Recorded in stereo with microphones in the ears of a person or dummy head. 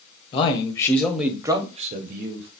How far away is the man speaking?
About 0.9 m.